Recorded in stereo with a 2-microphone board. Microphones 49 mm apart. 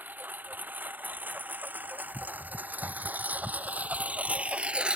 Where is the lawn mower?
40° right (ahead or behind); by 5.0 s 20° right (ahead or behind).